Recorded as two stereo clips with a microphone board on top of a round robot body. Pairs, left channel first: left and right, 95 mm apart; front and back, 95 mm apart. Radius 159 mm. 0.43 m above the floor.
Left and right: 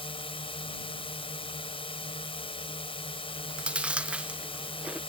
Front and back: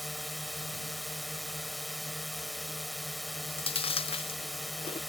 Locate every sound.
0.0 s a drone: 90° left
3.3 s chewing: 10° right